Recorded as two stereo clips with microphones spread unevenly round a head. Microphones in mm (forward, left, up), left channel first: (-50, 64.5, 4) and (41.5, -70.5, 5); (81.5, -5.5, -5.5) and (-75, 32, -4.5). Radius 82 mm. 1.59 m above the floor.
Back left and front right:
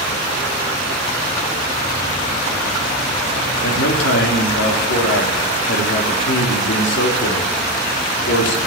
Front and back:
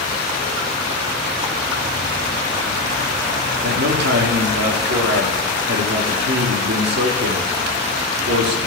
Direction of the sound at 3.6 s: 145° left.